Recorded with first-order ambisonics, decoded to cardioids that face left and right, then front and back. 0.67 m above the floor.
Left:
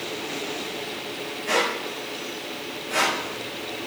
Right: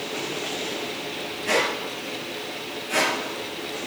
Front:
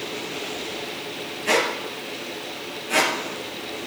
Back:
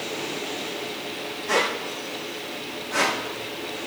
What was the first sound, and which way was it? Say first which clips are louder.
A squeak: even, front 2 dB; 10° right.